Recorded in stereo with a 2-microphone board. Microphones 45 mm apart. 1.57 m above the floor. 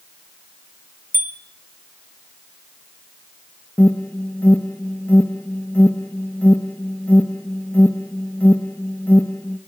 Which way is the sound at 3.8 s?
45° left (ahead or behind).